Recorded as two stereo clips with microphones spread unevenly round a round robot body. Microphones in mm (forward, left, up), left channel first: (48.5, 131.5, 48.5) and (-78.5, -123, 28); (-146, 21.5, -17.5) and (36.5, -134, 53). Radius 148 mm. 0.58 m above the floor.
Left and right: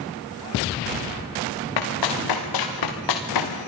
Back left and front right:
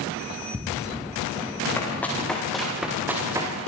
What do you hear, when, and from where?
1.8 s running footsteps: 55° left, 6.5 m; by 3.5 s 35° left, 5 m